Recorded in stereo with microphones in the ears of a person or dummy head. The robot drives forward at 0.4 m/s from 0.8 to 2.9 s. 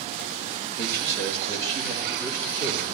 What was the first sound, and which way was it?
A man speaking, 15° left (ahead or behind).